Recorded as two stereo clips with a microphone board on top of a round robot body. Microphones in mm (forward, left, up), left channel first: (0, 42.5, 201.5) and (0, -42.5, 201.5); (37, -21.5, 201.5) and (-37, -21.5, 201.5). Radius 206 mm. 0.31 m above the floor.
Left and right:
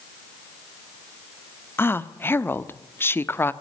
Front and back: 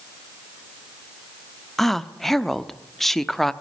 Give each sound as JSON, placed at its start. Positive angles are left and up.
{"t": 1.8, "sound": "a woman speaking", "azimuth_deg": 85, "distance_m": 1.3}